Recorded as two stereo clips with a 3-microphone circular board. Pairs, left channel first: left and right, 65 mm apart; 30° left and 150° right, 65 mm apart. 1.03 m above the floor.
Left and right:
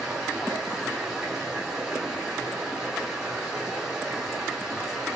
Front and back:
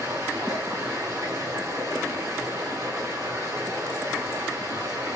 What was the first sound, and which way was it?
Running water, 165° right.